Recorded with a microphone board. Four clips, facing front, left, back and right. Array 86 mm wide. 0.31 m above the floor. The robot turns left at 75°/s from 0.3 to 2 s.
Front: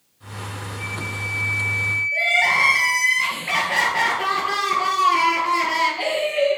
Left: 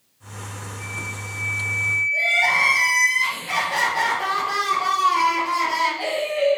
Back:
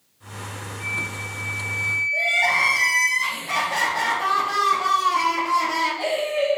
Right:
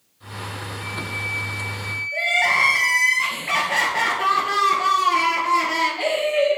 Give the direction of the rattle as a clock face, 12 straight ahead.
I don't hear a rattle.